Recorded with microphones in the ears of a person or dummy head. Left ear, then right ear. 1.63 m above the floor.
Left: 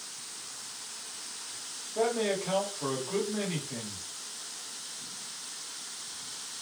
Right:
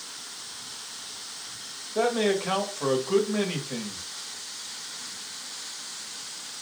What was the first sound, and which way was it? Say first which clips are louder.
A man speaking: right 4 dB; 70° right (ahead or behind).